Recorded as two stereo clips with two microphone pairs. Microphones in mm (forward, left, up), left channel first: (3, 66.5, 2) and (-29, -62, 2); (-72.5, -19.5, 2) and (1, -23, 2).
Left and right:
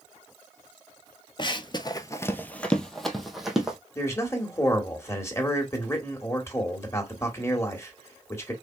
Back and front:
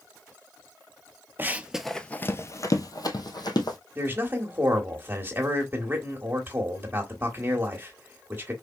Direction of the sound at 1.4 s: 45° left.